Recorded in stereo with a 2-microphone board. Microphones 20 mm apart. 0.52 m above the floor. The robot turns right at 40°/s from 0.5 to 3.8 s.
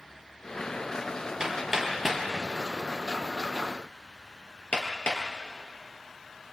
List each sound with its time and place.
1.4 s hammering: 35° right (ahead or behind), 4 m; by 5.2 s 60° left (ahead or behind), 4 m